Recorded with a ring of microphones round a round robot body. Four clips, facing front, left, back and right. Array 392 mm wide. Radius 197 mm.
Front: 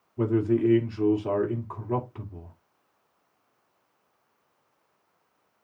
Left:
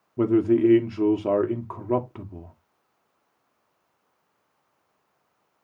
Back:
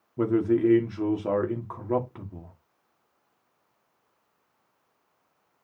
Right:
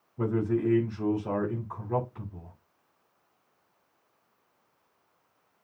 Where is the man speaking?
110° left, 2 m.